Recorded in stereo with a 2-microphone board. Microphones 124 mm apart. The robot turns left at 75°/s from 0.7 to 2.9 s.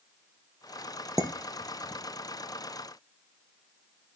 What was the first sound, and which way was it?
Dishes clattering, 25° right (ahead or behind).